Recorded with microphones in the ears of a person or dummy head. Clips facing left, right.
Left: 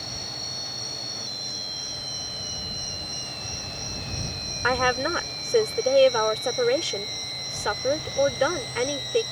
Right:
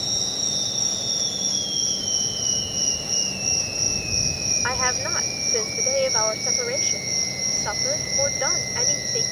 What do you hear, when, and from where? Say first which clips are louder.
0.0 s an insect: right 5 dB; 60° right (ahead or behind)
4.6 s a woman speaking: left 6 dB; 45° left (ahead or behind)